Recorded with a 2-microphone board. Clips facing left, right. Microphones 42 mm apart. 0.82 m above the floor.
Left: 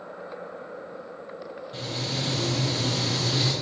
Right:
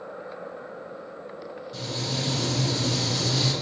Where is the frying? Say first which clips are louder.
Even; 35° left (ahead or behind), 5 m.